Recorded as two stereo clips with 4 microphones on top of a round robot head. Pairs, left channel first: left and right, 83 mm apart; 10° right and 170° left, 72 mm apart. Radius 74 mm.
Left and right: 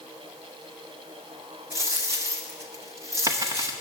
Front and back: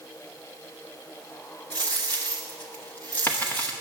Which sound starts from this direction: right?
A dropped coin, at 1.7 s.